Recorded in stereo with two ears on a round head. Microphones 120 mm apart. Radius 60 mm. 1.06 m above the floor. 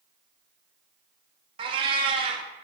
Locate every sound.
1.6 s a cat meowing: 40° right (ahead or behind), 0.5 m